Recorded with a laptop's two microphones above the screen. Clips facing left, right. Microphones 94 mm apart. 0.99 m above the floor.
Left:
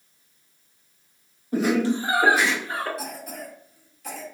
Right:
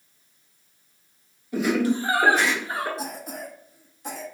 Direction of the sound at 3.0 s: 25° right (ahead or behind).